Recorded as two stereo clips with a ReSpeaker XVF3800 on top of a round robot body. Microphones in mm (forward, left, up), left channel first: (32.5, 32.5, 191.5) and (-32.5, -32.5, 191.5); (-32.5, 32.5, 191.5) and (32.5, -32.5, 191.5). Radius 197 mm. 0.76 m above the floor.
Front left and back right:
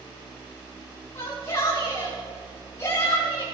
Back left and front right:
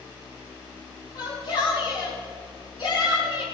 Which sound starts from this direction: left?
A shout, at 1.1 s.